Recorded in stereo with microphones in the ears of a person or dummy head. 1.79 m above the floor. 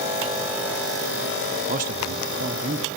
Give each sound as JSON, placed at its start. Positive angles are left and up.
{"t": 1.7, "sound": "a man speaking", "side_deg": -40, "distance_m": 0.9}